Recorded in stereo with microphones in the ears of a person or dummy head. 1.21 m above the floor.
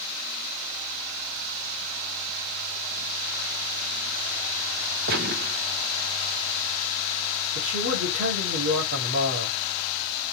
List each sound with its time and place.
5.1 s a gunshot: 40° right (ahead or behind), 0.6 m
7.5 s a man speaking: 65° right (ahead or behind), 3 m